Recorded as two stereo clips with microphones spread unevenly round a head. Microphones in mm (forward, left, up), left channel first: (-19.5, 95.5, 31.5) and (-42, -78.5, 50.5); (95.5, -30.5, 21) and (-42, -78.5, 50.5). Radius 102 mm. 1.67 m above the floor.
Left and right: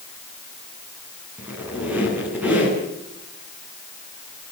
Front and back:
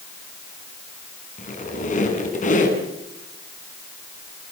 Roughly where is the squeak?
Ahead.